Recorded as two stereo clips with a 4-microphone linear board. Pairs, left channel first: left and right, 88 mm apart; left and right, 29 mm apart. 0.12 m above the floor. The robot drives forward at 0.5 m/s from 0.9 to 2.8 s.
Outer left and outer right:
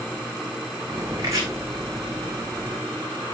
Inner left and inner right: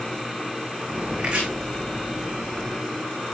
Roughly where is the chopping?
Right.